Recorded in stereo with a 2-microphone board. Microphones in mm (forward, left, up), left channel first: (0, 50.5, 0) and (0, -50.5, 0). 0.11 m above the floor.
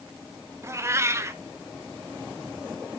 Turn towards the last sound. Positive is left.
turn(degrees=-25)  # may be behind; listen again after turning